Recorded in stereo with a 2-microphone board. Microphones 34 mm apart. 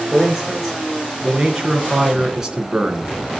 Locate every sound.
0.1 s a man speaking: 10° right (ahead or behind), 4 m; by 3.4 s 25° right (ahead or behind), 2.5 m